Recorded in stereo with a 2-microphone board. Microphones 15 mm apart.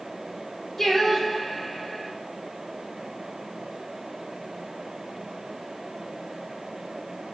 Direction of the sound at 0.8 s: 20° left (ahead or behind).